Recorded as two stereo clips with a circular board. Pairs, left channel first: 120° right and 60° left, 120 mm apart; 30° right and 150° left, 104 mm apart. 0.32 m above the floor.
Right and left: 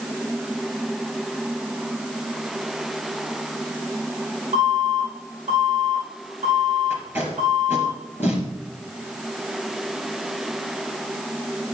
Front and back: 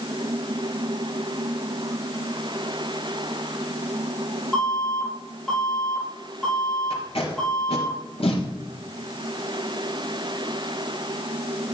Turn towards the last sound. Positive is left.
turn(degrees=-10)